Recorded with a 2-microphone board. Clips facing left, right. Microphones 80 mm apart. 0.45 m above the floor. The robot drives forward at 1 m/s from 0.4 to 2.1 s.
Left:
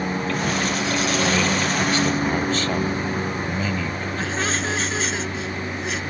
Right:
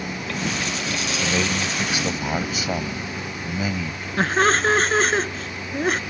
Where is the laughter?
50° right (ahead or behind).